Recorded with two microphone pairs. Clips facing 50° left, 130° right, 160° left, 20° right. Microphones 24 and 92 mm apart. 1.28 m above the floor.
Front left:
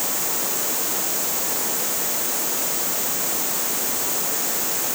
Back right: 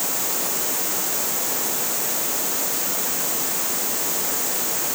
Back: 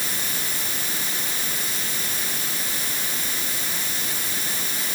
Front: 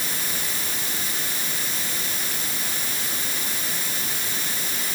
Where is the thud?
No thud in this recording.